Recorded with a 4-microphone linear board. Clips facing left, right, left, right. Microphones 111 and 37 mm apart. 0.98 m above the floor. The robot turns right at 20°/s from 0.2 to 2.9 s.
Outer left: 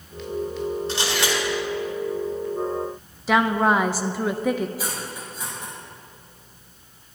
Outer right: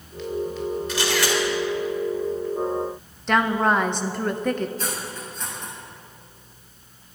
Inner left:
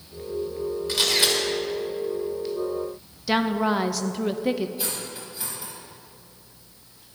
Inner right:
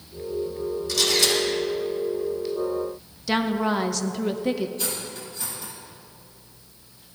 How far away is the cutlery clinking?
About 4.5 m.